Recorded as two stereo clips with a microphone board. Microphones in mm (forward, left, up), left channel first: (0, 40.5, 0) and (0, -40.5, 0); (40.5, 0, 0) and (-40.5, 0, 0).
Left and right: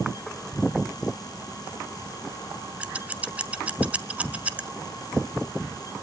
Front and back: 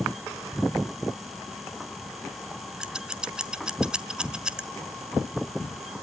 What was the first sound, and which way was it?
Scissors, 125° right.